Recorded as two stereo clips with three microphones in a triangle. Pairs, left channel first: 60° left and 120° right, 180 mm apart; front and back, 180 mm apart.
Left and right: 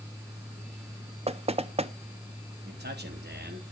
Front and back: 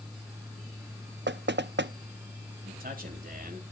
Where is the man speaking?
140° right, 3 m.